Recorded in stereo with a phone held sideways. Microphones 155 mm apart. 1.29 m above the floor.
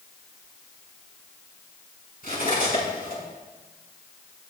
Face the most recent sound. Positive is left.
turn(degrees=75)  # may be behind; listen again after turning